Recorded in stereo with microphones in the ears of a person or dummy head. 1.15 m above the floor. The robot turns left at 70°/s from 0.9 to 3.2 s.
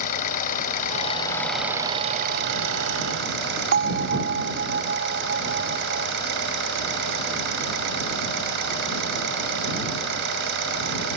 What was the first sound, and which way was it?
An engine running, 45° left.